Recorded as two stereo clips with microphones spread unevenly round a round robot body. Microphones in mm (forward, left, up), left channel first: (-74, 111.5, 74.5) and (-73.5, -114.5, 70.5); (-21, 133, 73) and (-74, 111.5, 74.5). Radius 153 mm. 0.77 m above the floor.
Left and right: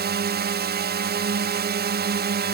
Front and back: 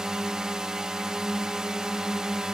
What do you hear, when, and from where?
0.0 s a drone: 80° right